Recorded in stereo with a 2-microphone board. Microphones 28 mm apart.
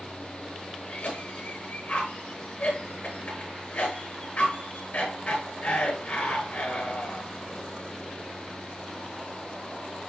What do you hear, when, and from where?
0.9 s a cough: 65° left (ahead or behind), 8 m